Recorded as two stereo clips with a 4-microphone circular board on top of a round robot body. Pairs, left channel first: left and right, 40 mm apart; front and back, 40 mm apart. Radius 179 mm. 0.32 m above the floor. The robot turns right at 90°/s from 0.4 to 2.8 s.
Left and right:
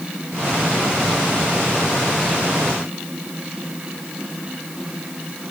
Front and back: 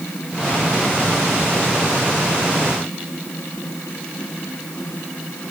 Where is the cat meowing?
I don't hear a cat meowing.